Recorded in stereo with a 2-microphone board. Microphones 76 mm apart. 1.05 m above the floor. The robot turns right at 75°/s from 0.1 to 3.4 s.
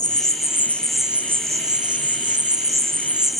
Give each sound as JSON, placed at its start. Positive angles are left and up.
{"t": 0.0, "sound": "an insect", "azimuth_deg": 115, "distance_m": 1.0}